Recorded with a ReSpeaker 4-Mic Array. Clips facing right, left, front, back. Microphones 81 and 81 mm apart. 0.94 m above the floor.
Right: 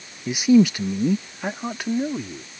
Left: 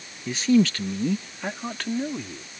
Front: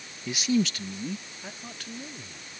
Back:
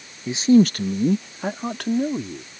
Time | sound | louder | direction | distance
0.3 | a man speaking | right 4 dB, back 11 dB | 150° right | ?